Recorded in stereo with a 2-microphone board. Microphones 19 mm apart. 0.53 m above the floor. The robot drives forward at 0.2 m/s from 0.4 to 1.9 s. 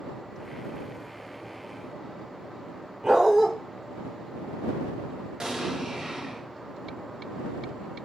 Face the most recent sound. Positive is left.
turn(degrees=-45)  # may be behind; listen again after turning